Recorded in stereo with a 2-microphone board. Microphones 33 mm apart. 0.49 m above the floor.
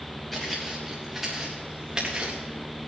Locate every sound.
0.3 s footsteps: 10° left (ahead or behind), 4 m; by 2.4 s 35° right (ahead or behind), 3 m